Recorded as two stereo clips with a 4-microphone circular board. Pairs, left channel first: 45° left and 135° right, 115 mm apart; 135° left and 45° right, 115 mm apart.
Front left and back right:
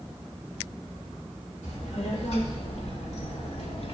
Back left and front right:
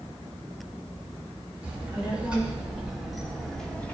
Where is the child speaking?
30° left, 4.5 m; by 4.0 s 60° left, 1.8 m.